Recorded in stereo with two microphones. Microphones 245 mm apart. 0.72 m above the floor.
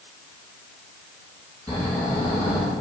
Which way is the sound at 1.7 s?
5° left (ahead or behind).